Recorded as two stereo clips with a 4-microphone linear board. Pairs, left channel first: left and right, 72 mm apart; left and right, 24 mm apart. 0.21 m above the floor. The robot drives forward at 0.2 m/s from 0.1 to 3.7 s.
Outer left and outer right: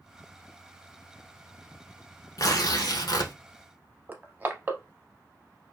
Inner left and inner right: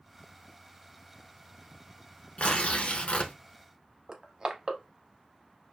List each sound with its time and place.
2.4 s tearing paper: 60° left (ahead or behind), 0.7 m; by 3.3 s 70° left (ahead or behind), 0.6 m
4.1 s crushing: 25° right (ahead or behind), 0.6 m